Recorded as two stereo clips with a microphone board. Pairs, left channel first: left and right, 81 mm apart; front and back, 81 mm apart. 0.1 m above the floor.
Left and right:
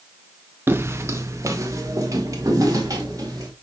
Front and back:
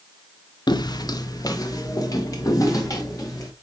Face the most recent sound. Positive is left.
turn(degrees=-45)